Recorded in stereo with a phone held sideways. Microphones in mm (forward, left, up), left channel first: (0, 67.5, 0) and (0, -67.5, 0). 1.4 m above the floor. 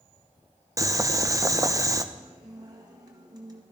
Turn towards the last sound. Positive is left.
turn(degrees=-30)  # may be behind; listen again after turning